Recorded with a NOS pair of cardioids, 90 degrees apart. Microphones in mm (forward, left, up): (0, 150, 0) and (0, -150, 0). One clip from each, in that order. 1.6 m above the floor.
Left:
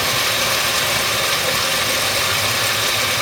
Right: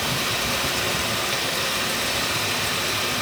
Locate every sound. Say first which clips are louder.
0.0 s running water: left 6 dB; 65° left, 7 m